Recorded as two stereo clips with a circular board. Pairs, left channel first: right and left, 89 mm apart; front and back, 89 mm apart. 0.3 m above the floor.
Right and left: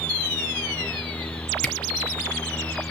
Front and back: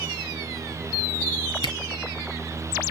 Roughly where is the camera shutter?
Ahead.